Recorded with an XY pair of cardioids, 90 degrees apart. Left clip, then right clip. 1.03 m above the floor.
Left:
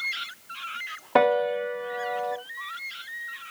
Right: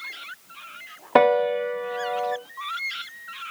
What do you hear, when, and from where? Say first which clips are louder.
1.1 s a piano: right 3 dB; 35° right, 0.6 m